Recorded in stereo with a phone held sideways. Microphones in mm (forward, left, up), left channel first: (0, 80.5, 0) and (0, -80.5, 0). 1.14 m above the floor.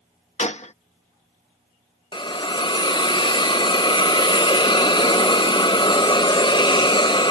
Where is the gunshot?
50° left (ahead or behind).